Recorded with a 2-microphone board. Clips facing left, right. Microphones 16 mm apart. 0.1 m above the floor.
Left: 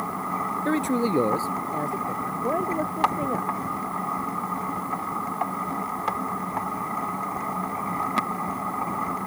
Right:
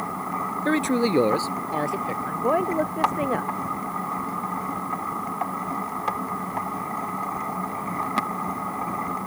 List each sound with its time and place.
0.7 s a man speaking: 20° right (ahead or behind); by 2.1 s 45° right (ahead or behind)
2.2 s a woman speaking: 40° right (ahead or behind)